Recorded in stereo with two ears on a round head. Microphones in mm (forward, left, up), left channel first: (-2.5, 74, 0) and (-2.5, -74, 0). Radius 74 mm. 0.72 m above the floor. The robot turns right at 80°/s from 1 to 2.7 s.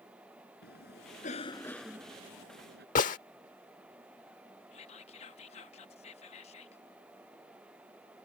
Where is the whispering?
40° left (ahead or behind).